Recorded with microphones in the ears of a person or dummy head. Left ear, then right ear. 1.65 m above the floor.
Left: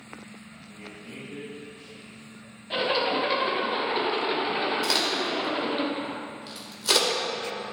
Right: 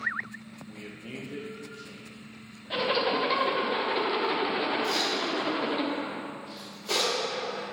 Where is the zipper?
Centre (ahead or behind), 1.0 m.